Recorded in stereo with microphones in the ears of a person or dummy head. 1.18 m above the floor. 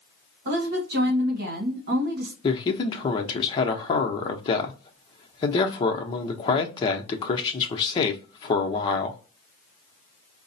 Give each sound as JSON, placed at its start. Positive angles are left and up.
{"t": 0.5, "sound": "a woman speaking", "side_deg": -50, "distance_m": 1.3}
{"t": 2.4, "sound": "a man speaking", "side_deg": 30, "distance_m": 0.6}